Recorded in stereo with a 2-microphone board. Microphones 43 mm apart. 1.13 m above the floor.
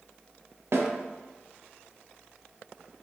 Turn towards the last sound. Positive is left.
turn(degrees=-65)  # may be behind; listen again after turning